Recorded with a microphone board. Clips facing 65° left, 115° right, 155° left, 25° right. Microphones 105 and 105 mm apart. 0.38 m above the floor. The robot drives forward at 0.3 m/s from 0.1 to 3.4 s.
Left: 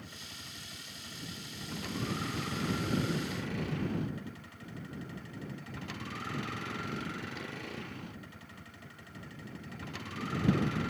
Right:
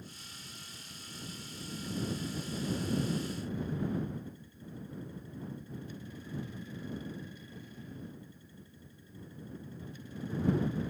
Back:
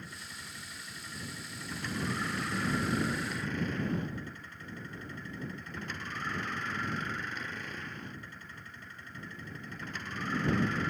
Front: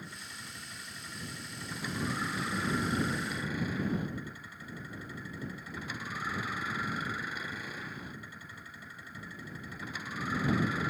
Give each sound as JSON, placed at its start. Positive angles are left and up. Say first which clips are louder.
{"t": 0.0, "sound": "a vehicle", "louder": "left 2 dB, even", "azimuth_deg": 60}